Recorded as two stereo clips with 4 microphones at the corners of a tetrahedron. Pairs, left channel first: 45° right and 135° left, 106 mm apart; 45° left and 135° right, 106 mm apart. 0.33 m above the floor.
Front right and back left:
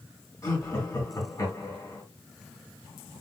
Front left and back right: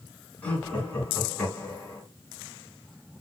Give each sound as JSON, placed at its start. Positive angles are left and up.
{"t": 0.4, "sound": "laughter", "azimuth_deg": -20, "distance_m": 1.8}